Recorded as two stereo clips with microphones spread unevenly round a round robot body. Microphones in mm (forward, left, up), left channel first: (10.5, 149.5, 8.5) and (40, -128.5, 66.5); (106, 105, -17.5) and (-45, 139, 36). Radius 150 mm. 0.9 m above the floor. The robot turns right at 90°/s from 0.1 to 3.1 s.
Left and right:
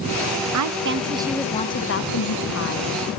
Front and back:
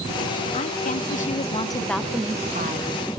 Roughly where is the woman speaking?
Ahead right.